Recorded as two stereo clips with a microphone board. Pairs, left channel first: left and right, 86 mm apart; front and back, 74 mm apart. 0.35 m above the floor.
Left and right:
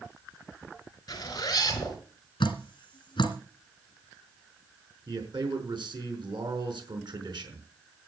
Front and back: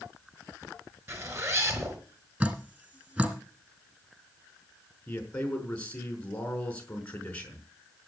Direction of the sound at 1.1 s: 130° left.